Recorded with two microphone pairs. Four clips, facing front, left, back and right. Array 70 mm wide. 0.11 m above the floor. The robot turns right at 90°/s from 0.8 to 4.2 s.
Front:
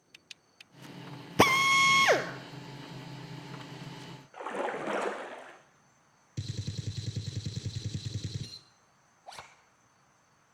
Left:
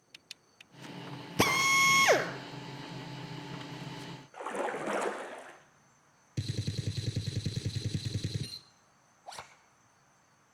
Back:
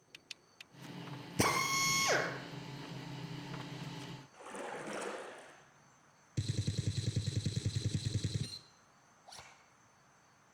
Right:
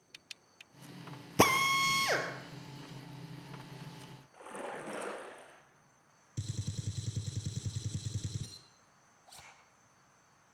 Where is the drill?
20° right, 2 m; by 2.3 s 55° left, 2 m.